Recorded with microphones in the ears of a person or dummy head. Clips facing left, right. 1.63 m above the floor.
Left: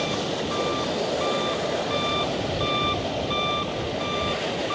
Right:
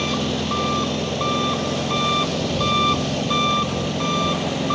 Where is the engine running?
70° right (ahead or behind).